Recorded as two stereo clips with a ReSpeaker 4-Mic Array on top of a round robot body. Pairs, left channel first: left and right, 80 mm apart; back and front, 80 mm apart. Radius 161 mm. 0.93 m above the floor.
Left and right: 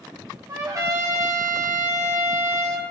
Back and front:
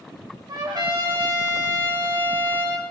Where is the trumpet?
40° right, 2.5 m.